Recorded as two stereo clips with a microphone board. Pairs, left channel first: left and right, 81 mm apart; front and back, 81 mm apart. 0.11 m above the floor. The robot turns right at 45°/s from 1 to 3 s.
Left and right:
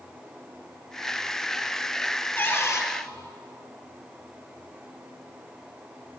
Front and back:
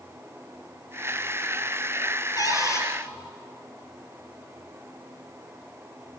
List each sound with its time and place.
2.4 s a cupboard door: 25° left, 3 m; by 2.9 s 50° left, 3 m